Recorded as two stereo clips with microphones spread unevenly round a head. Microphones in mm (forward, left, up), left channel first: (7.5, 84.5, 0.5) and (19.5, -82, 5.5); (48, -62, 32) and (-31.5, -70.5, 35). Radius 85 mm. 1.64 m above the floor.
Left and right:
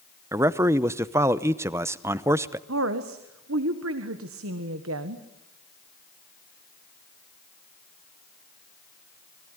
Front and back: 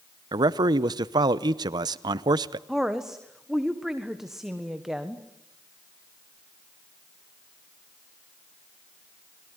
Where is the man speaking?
155° right, 0.8 m.